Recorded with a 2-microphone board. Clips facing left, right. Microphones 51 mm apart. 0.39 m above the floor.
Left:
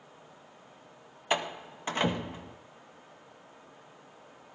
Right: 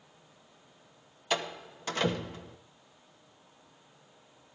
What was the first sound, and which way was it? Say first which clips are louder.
A door slam: left 2 dB; 25° left (ahead or behind).